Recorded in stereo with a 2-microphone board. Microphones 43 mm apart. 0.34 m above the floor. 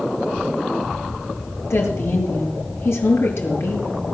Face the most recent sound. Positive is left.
turn(degrees=80)